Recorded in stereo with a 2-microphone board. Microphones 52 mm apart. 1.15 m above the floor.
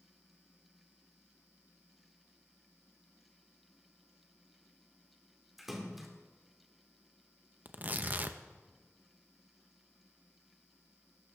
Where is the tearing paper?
35° right (ahead or behind), 0.6 m.